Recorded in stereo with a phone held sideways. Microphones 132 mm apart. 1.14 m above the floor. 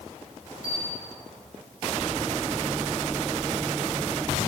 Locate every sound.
0.6 s a bell: 25° left (ahead or behind), 3.5 m